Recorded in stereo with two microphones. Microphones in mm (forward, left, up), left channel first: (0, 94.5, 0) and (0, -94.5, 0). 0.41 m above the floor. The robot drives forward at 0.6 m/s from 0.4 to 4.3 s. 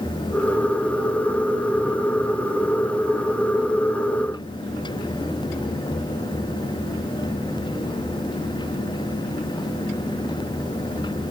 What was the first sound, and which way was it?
Only background noise.